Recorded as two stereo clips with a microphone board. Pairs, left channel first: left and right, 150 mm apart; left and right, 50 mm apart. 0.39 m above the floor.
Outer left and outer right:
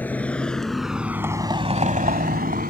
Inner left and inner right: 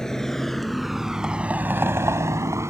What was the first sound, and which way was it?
A vehicle, 10° left (ahead or behind).